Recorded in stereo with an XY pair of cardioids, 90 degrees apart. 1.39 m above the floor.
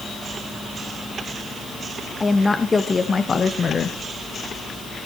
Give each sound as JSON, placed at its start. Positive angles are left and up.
{"t": 2.2, "sound": "a woman speaking", "azimuth_deg": 25, "distance_m": 2.0}